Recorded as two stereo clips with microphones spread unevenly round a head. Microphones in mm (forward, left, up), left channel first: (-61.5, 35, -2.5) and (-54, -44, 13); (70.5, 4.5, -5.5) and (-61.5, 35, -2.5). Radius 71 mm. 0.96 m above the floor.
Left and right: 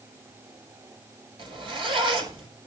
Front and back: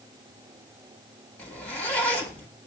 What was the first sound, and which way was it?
A zipper, 95° right.